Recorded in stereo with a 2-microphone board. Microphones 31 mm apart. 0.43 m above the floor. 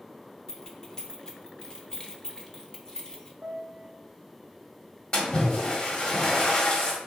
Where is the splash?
35° left (ahead or behind), 1.5 m.